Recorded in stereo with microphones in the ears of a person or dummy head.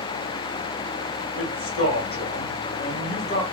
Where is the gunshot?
I don't hear a gunshot.